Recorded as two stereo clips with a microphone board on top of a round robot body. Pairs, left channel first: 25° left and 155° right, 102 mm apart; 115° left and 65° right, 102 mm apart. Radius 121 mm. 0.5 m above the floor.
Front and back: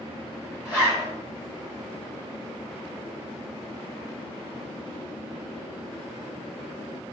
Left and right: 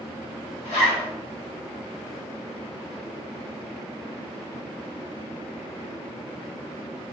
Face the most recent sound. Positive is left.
turn(degrees=125)